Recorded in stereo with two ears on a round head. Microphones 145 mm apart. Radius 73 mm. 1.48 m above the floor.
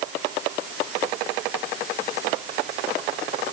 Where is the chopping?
I don't hear chopping.